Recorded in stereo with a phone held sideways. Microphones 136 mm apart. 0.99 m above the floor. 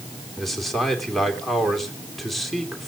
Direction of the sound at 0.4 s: Centre (ahead or behind).